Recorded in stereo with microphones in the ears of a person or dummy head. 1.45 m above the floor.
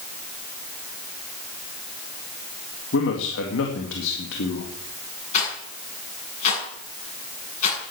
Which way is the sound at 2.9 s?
75° left (ahead or behind).